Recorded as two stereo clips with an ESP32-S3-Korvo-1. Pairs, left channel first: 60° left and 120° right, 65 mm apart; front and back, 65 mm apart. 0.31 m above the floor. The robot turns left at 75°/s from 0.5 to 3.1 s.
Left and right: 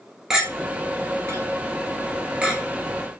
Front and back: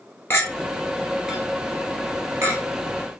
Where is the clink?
45° right, 1.2 m; by 3.2 s 120° left, 1.2 m.